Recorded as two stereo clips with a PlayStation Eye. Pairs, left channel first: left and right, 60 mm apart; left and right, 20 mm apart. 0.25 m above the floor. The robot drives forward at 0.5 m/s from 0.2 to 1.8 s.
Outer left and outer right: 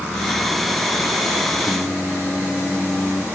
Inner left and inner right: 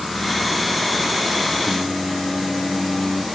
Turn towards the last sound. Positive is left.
turn(degrees=20)  # may be behind; listen again after turning